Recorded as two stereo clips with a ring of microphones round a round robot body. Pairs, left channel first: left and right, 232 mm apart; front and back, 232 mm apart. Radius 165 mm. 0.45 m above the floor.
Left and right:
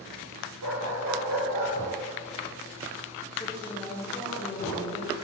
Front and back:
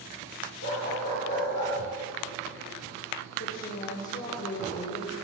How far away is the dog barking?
About 5 m.